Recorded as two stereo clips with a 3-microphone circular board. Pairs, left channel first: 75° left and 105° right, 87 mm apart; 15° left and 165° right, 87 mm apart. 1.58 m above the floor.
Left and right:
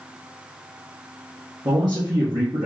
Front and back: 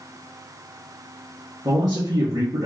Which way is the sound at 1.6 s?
135° right.